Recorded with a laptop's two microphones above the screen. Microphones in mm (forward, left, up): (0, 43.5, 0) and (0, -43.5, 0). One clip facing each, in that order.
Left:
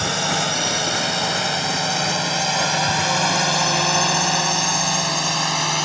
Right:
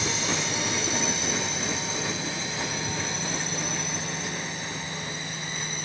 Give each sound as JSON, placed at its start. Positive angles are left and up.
{"t": 0.0, "sound": "a drone", "side_deg": 65}